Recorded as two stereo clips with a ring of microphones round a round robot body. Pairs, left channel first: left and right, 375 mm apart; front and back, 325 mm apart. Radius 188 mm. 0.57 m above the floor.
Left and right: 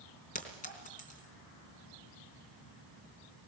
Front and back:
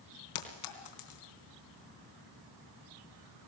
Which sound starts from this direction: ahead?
A clink, at 0.3 s.